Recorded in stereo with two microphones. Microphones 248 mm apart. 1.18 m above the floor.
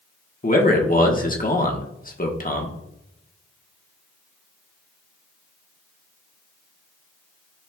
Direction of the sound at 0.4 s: 35° left (ahead or behind).